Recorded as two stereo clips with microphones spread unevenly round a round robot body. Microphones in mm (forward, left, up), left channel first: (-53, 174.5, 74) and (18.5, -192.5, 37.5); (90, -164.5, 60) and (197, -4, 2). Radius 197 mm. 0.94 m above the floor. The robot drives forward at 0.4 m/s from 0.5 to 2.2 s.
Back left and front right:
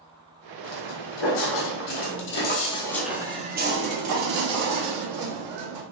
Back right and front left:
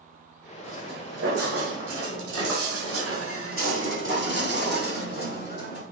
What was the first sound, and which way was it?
Footsteps, 125° left.